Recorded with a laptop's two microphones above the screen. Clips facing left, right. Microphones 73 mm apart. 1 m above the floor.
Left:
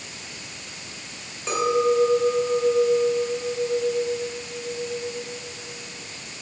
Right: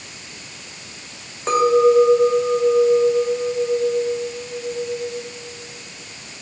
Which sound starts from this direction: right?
A clink, at 1.5 s.